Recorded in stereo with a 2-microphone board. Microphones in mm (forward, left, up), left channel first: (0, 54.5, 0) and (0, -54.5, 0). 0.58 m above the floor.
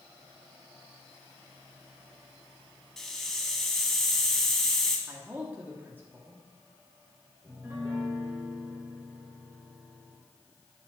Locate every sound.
3.0 s a hiss: 5° left (ahead or behind), 1.5 m
5.1 s a man speaking: 20° right (ahead or behind), 1.3 m
7.4 s a piano: 25° right (ahead or behind), 1.6 m